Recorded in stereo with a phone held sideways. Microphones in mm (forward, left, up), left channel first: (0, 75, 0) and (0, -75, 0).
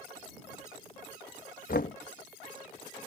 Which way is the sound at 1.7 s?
65° left (ahead or behind).